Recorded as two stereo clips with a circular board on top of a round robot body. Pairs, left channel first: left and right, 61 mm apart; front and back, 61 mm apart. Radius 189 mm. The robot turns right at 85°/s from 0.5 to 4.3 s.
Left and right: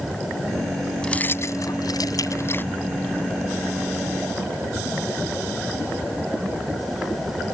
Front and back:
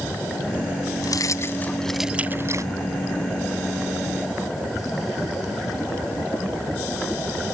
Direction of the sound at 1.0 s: 10° left.